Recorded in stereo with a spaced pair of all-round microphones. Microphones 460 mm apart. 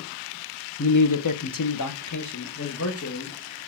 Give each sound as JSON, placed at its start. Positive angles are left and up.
{"t": 0.8, "sound": "a man speaking", "side_deg": 35, "distance_m": 0.5}